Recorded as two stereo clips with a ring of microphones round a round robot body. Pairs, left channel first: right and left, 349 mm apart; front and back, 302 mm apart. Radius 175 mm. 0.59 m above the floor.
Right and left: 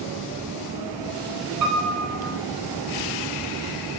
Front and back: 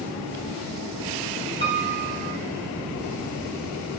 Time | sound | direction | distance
1.6 | a piano | 50° left | 3 m